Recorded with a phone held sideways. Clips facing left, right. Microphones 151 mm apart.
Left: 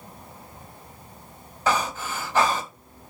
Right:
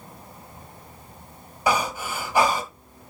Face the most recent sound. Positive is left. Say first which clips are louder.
# right 1 dB
turn(degrees=-10)  # may be behind; listen again after turning